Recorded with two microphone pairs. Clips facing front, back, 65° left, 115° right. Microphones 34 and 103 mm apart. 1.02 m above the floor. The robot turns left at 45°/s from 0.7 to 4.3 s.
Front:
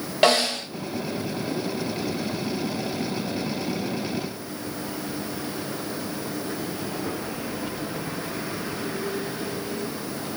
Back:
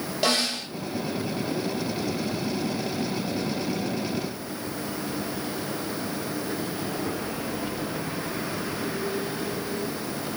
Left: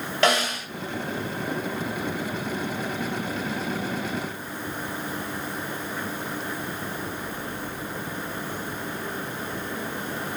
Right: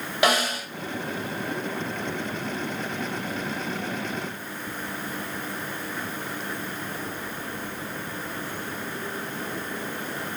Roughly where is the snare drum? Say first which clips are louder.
Front 6 dB, even; ahead right.